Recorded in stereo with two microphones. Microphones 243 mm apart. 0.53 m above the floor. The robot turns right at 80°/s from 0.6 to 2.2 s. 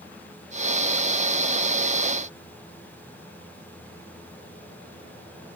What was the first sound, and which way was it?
Only background noise.